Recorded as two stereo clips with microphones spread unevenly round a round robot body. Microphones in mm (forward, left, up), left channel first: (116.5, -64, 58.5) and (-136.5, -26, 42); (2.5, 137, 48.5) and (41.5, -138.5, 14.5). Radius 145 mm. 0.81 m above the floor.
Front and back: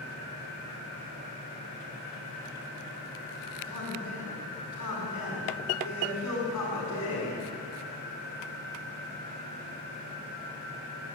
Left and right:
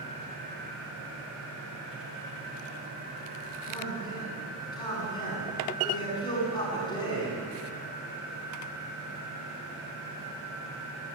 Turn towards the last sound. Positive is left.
turn(degrees=25)